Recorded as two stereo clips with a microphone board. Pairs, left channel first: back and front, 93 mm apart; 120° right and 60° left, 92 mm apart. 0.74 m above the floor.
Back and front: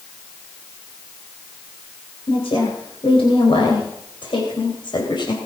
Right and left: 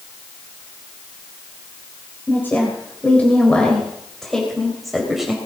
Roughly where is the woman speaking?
Behind.